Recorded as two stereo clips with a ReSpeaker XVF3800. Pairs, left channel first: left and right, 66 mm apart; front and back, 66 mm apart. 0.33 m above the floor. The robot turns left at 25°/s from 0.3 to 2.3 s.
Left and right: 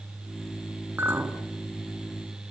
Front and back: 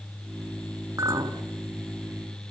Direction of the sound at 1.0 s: 150° right.